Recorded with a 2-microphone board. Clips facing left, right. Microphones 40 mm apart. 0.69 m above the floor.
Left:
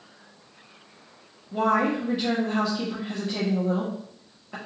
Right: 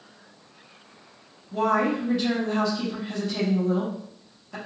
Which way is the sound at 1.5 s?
20° left (ahead or behind).